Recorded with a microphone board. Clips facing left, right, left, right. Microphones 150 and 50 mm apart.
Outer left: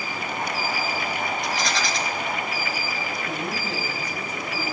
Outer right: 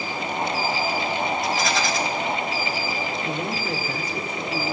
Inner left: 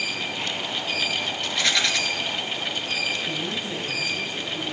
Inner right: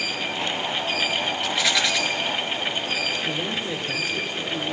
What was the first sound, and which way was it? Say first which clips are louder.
A rattle: outer right 3 dB, even; centre (ahead or behind).